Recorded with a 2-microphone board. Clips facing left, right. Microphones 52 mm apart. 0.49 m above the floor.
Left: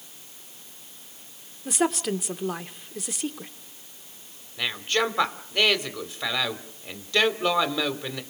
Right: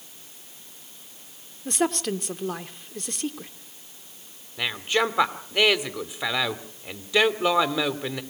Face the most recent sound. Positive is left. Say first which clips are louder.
# right 1 dB
turn(degrees=-10)  # may be behind; listen again after turning